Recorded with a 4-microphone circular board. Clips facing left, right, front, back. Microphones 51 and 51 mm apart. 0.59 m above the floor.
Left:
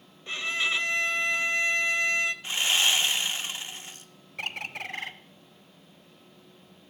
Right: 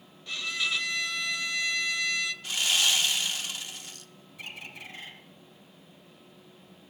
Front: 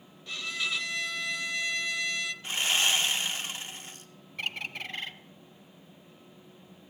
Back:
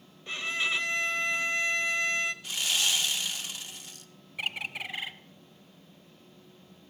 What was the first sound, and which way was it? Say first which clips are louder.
A violin: left 3 dB, back 3 dB; 135° left.